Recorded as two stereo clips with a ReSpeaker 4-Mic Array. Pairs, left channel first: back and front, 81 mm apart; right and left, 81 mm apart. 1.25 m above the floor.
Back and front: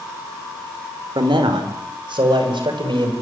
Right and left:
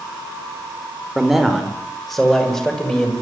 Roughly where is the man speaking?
Ahead.